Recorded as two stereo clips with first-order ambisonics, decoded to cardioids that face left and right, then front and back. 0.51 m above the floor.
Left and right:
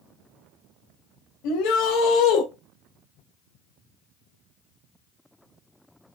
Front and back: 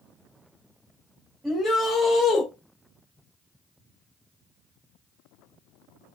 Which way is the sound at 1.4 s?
95° left.